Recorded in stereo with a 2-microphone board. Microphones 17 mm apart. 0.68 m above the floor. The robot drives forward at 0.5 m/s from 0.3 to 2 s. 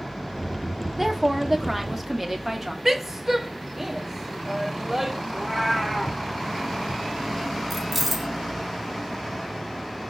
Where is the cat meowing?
15° left (ahead or behind), 2 m.